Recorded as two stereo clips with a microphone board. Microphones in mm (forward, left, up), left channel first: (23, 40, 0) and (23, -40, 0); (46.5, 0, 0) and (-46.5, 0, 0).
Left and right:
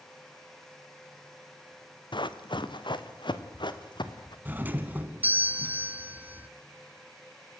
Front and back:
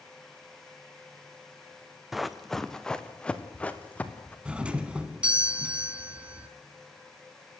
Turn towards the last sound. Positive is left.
turn(degrees=-120)